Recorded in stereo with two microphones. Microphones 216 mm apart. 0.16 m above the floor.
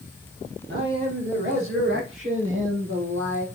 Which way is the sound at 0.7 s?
65° right (ahead or behind).